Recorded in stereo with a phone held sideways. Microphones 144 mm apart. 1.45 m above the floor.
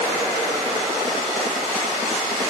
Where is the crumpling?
I don't hear crumpling.